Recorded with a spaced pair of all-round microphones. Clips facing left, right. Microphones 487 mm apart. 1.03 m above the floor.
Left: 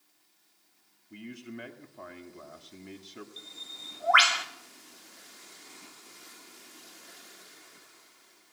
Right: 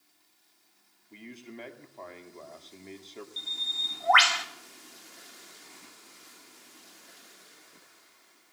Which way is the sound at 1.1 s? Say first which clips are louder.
Left 3 dB; 30° left (ahead or behind).